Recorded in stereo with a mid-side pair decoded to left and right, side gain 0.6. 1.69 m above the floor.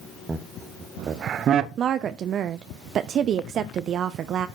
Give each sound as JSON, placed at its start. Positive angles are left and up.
{"t": 0.3, "sound": "laughter", "azimuth_deg": -15, "distance_m": 1.3}
{"t": 1.8, "sound": "a woman speaking", "azimuth_deg": -50, "distance_m": 0.7}